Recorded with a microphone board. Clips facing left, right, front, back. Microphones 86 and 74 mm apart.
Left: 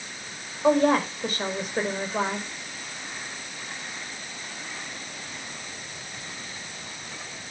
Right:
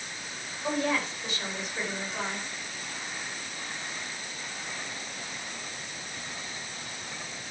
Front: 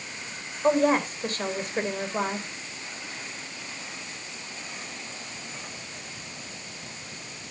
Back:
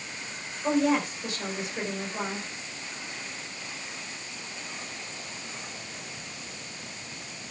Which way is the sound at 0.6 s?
45° left.